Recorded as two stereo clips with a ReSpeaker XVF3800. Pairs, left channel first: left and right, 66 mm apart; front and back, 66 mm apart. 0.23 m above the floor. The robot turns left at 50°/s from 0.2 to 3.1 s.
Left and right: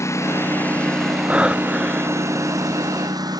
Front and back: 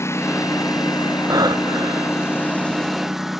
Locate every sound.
0.0 s a lawn mower: 45° left; by 3.4 s 95° right
1.3 s breathing: 155° right; by 2.3 s 150° left